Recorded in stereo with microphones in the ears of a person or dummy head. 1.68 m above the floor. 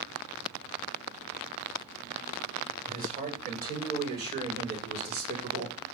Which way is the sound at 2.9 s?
40° right (ahead or behind).